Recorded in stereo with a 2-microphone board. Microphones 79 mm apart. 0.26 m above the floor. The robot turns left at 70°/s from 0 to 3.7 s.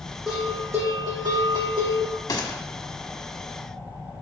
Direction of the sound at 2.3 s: 55° left (ahead or behind).